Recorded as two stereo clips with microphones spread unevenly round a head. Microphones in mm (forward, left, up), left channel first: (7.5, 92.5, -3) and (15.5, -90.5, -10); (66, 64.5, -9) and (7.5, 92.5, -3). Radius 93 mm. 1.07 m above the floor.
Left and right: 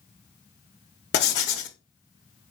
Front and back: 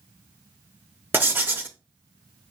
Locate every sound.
1.1 s writing: 105° left, 0.8 m